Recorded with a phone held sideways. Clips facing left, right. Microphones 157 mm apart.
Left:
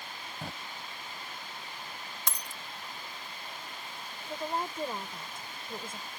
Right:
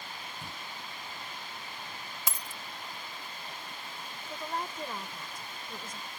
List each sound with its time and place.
0.4 s a drawer: 80° left
2.3 s a dropped coin: 5° right (ahead or behind)
4.3 s a woman speaking: 30° left (ahead or behind)